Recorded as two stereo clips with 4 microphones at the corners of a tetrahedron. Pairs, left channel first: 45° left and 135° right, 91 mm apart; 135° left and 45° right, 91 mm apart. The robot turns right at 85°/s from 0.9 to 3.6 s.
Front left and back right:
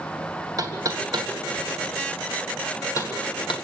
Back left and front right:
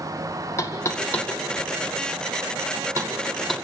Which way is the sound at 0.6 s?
175° right.